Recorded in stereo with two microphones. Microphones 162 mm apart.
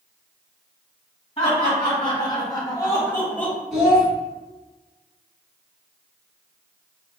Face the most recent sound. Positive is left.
turn(degrees=0)  # may be behind; listen again after turning